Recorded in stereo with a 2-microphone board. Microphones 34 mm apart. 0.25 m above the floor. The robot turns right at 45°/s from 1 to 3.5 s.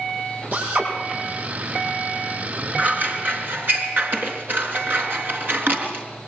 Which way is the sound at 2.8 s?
45° right (ahead or behind).